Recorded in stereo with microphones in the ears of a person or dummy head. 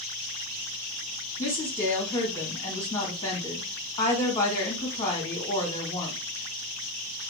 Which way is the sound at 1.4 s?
20° left (ahead or behind).